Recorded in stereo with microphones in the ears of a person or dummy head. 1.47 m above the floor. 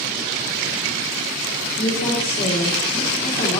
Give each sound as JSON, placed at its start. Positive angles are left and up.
{"t": 1.8, "sound": "a woman speaking", "side_deg": 25, "distance_m": 1.9}